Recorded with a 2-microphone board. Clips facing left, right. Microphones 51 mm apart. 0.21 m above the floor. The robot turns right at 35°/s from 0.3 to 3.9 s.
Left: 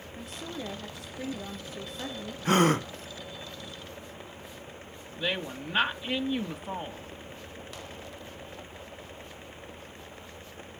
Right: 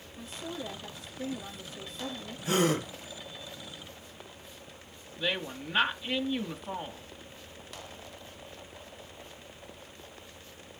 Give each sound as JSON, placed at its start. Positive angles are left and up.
{"t": 0.2, "sound": "a woman speaking", "azimuth_deg": 55, "distance_m": 4.5}
{"t": 2.5, "sound": "a gasp", "side_deg": 50, "distance_m": 1.4}
{"t": 5.2, "sound": "a woman speaking", "side_deg": 5, "distance_m": 1.0}